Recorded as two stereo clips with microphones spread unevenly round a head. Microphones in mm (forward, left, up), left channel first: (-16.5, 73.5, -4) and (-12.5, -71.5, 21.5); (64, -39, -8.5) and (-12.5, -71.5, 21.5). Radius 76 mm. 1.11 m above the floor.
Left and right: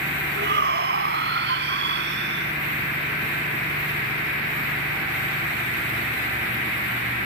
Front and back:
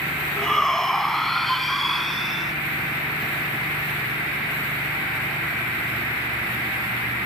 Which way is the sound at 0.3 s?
65° right.